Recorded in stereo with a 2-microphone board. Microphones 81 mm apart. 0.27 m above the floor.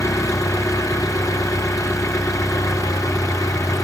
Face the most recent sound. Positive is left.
turn(degrees=45)  # may be behind; listen again after turning